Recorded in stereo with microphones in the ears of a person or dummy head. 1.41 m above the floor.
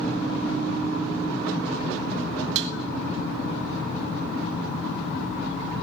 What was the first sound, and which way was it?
Dishes clattering, 65° right (ahead or behind).